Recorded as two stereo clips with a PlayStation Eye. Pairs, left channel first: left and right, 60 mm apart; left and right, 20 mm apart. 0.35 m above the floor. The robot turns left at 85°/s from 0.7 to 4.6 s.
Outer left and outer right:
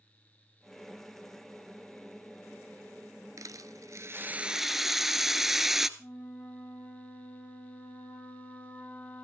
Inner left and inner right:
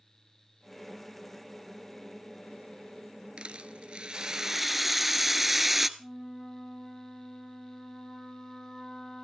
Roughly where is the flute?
Left.